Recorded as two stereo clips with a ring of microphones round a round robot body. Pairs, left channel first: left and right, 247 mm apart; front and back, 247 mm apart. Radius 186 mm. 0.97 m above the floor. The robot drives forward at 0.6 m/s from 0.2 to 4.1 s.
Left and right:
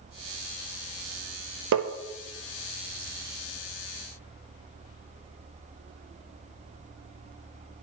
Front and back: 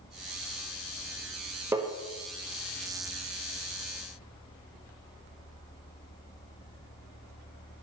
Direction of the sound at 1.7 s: 100° right.